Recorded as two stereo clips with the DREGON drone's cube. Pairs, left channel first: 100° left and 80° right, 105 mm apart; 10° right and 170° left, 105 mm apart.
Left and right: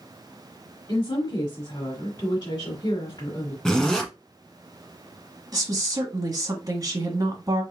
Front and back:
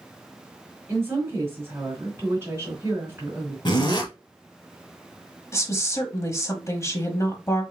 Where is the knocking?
I don't hear knocking.